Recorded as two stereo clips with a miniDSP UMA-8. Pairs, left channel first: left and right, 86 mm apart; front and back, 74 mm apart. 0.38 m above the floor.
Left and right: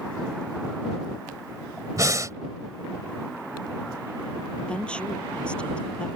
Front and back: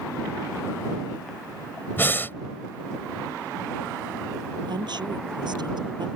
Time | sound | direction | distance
2.0 | breathing | 55° right | ?
4.7 | a woman speaking | 165° left | ?